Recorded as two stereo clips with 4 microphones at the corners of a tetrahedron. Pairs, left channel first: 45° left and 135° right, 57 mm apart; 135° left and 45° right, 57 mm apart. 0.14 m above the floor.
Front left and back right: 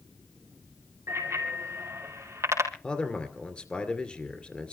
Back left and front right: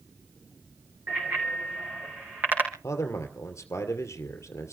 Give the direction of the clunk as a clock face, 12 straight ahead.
No clunk in this recording.